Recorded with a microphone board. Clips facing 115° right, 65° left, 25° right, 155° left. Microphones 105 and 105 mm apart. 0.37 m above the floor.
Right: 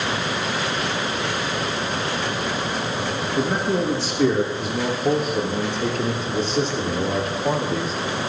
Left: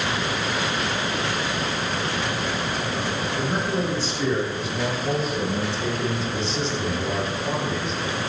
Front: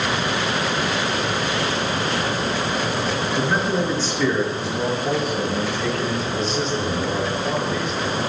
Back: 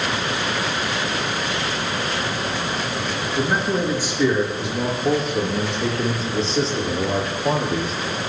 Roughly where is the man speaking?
Behind right.